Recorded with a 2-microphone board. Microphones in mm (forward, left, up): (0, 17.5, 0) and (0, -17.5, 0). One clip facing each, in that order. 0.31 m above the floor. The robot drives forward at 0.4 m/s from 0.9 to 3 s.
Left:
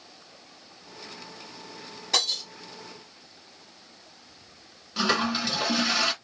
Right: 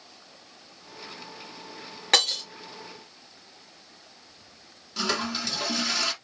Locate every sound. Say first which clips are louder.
2.1 s breaking glass: right 4 dB; 65° right (ahead or behind), 2 m; by 2.4 s 60° right (ahead or behind), 2.5 m
5.0 s a toilet flushing: left 4 dB; 15° left (ahead or behind), 0.9 m